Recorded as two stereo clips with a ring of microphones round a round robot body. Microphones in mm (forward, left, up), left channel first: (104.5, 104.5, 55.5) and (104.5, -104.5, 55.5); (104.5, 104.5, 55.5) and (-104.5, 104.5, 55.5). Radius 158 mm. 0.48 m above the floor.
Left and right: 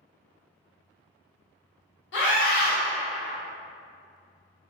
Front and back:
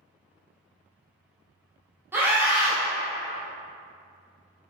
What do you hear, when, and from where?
2.1 s a scream: 100° left, 1.2 m